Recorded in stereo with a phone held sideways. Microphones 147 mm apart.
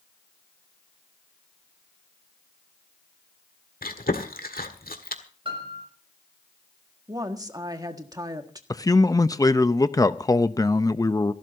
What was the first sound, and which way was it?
Chewing, 85° left.